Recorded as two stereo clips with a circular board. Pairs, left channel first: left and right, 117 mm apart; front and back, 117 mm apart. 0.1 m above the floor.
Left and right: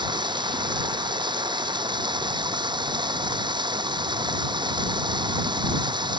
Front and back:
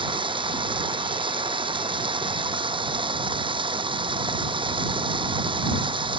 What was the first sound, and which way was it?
Running water, 135° right.